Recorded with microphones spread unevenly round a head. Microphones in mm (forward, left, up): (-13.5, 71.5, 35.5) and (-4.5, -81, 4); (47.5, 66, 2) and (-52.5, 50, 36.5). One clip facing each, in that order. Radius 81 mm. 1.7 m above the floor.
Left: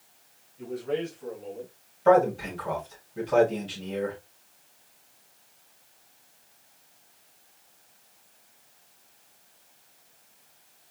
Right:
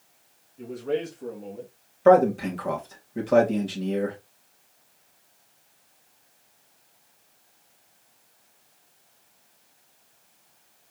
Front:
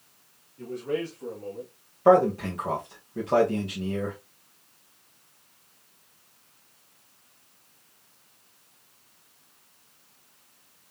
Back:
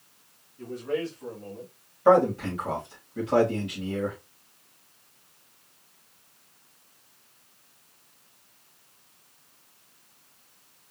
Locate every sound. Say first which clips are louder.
0.6 s a man speaking: right 2 dB, even; 40° right, 2 m; by 1.7 s 75° right, 2.5 m
2.0 s a man speaking: right 3 dB, front 1 dB; 55° right, 2.5 m